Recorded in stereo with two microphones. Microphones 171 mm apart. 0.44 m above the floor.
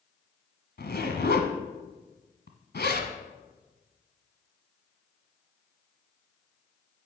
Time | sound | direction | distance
0.8 | a zipper | 75° left (ahead or behind) | 1.3 m